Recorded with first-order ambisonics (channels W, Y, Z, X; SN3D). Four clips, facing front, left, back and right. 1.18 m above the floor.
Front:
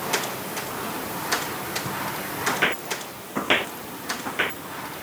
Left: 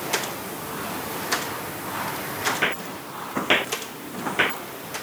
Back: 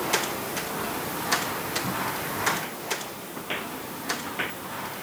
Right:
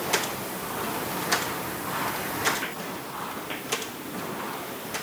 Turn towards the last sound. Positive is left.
turn(degrees=75)